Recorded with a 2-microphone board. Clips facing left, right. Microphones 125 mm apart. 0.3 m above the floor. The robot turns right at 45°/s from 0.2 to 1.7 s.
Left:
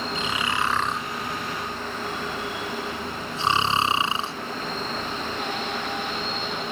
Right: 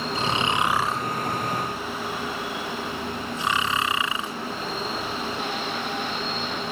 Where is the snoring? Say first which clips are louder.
Right 4 dB; 35° right (ahead or behind); by 4.3 s 30° left (ahead or behind).